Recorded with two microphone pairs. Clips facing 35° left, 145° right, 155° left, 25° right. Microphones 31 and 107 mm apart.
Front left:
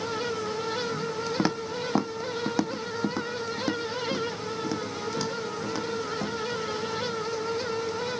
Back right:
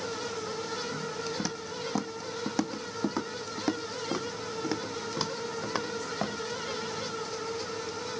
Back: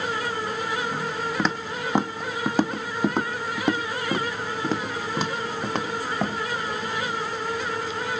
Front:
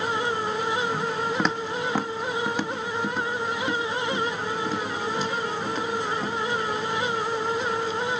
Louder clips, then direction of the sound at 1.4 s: Front left 7 dB, front 1 dB; 60° left.